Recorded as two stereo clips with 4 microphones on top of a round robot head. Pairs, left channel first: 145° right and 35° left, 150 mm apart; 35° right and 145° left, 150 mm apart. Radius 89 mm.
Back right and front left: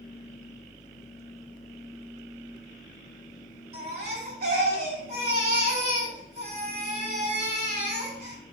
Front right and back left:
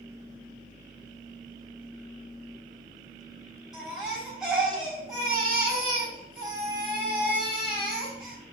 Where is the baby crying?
55° left, 4.5 m.